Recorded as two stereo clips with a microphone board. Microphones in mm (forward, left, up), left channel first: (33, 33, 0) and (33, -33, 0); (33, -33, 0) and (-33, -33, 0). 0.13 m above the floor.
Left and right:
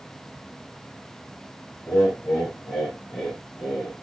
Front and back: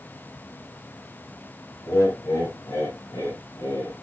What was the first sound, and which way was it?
Laughter, 20° left.